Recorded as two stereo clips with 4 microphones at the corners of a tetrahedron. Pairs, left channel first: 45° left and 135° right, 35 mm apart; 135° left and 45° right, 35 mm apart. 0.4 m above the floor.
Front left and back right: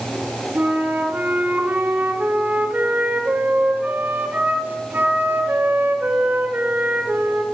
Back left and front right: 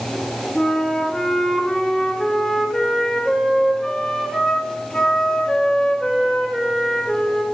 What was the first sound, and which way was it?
A flute, 165° right.